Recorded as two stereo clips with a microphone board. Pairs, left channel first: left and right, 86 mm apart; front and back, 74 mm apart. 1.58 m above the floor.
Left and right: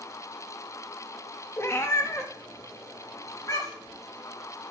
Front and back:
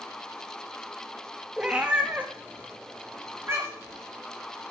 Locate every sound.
1.6 s a cat meowing: 110° left, 1.0 m; by 4.0 s 135° left, 2 m